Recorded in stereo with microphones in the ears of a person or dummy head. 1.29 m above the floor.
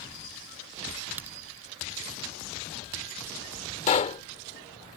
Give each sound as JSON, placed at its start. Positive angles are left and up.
{"t": 1.2, "sound": "a crack", "side_deg": -10}
{"t": 3.9, "sound": "a pop", "side_deg": 40}